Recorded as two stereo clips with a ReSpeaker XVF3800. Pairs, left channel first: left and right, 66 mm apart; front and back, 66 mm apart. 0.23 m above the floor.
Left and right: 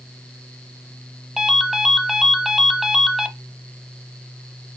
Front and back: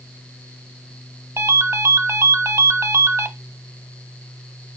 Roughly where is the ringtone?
Behind.